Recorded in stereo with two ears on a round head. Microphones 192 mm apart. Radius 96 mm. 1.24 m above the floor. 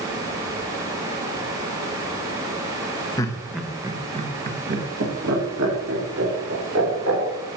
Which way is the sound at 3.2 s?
15° left (ahead or behind).